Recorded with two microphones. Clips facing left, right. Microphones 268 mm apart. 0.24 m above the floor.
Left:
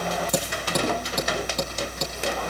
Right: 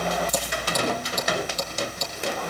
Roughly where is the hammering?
Left.